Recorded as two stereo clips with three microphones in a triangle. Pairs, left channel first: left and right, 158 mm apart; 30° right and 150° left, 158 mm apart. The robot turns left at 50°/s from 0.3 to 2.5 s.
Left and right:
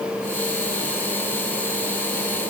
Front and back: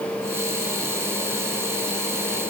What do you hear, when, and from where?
Only background noise.